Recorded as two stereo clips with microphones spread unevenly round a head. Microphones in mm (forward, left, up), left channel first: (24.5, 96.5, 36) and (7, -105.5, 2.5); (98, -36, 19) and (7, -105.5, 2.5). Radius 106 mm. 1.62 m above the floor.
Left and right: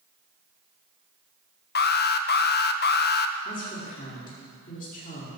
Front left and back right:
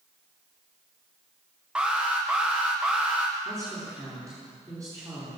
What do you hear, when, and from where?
1.8 s an alarm: 130° left, 1.0 m
3.5 s a woman speaking: 140° left, 5 m